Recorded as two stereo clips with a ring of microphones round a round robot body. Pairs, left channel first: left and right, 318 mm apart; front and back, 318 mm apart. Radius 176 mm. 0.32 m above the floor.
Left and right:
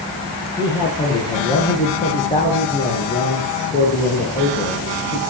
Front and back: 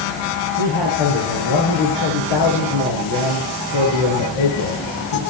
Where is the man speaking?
15° left, 6 m; by 5.2 s 25° left, 8 m.